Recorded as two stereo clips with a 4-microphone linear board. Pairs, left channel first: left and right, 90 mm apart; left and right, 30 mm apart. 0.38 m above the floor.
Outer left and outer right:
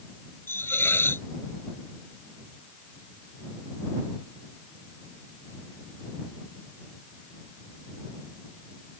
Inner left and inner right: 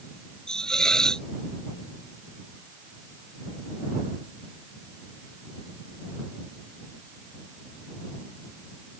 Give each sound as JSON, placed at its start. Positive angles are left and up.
{"t": 0.5, "sound": "a hiss", "side_deg": 25}